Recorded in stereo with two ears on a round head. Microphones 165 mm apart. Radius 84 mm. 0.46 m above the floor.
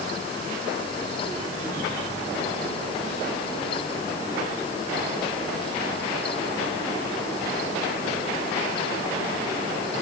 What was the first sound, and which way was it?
Only background noise.